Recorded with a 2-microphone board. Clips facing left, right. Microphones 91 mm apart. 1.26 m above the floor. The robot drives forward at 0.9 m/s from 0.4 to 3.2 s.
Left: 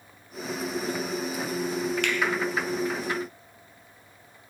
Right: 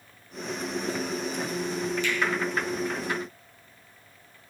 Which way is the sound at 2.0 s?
70° left (ahead or behind).